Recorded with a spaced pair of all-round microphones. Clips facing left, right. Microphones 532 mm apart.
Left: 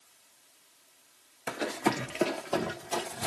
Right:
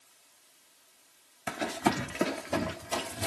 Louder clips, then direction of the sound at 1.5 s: Even; 20° right (ahead or behind).